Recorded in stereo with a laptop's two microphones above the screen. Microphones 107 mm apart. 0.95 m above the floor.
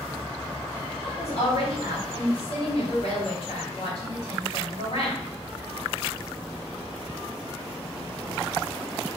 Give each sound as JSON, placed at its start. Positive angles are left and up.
{"t": 1.0, "sound": "a woman speaking", "side_deg": 60, "distance_m": 2.5}